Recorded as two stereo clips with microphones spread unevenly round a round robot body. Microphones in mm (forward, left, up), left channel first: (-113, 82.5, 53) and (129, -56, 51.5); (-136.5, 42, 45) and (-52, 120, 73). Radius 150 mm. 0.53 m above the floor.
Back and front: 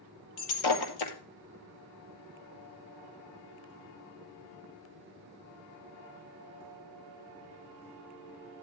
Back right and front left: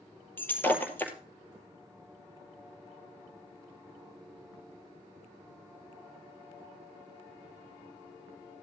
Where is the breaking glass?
145° left, 2.5 m.